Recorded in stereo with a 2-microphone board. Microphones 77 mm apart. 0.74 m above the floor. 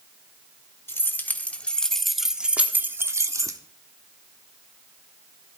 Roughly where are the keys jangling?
Left.